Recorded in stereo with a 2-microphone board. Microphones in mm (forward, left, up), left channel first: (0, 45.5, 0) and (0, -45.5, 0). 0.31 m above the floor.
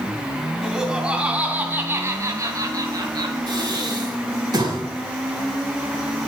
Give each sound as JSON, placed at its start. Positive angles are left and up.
{"t": 0.6, "sound": "laughter", "side_deg": -5, "distance_m": 2.5}
{"t": 3.5, "sound": "breathing", "side_deg": -50, "distance_m": 3.5}